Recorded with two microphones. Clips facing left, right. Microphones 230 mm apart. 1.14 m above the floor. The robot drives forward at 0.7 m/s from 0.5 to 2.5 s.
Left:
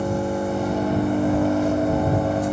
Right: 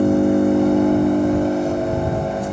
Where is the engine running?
60° right (ahead or behind), 0.9 m; by 2.5 s 25° right (ahead or behind), 1.9 m.